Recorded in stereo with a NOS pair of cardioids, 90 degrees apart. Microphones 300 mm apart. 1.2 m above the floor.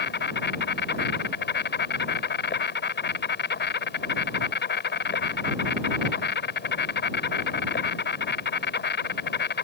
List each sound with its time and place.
0.0 s an insect: 35° left